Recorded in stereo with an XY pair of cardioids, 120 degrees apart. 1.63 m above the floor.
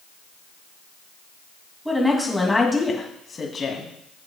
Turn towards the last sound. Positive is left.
turn(degrees=40)